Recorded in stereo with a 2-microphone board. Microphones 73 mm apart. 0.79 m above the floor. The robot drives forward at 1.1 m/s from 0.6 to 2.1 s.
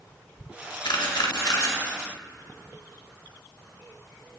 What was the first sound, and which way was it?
A camera shutter, 75° left (ahead or behind).